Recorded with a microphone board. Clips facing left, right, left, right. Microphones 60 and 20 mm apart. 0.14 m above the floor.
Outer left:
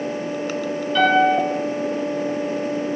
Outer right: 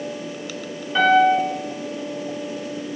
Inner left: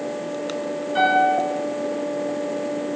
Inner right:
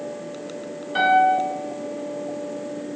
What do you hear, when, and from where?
0.9 s a piano: 25° right (ahead or behind), 0.9 m